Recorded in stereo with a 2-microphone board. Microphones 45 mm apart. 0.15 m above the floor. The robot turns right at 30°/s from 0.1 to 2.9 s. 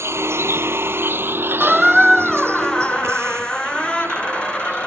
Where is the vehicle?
75° right (ahead or behind); by 4.9 s 65° right (ahead or behind).